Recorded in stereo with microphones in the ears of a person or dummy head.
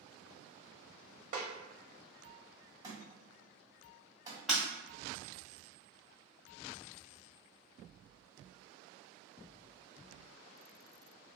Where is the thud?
25° right (ahead or behind), 1.8 m.